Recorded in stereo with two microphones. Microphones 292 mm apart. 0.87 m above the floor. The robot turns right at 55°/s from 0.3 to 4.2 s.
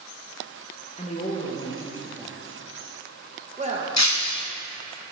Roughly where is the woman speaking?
Left.